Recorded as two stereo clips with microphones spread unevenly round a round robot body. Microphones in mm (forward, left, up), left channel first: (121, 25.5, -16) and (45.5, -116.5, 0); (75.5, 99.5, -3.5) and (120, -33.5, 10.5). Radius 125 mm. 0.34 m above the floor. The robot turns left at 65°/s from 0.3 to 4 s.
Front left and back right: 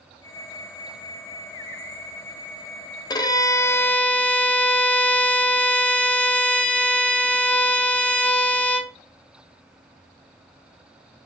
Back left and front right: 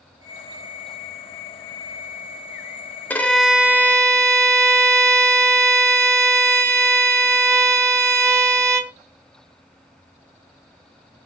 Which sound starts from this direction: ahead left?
A violin, at 3.1 s.